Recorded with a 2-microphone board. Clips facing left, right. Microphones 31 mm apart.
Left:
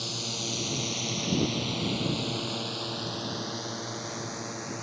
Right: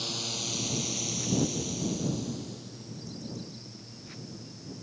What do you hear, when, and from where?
0.0 s a drone: centre (ahead or behind); by 4.8 s 75° left (ahead or behind)